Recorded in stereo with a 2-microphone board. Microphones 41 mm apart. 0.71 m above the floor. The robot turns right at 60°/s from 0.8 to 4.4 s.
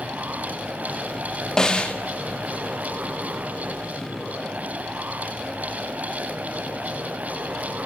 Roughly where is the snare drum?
Centre.